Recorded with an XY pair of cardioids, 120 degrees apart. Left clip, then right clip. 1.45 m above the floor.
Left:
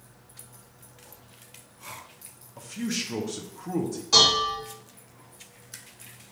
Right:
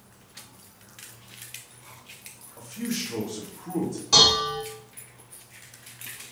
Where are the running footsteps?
I don't hear running footsteps.